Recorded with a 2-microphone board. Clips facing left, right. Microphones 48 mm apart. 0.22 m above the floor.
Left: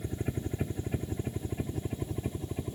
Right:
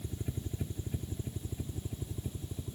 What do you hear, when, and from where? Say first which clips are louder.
0.0 s a helicopter: left 6 dB; 45° left (ahead or behind); by 2.8 s 55° left (ahead or behind)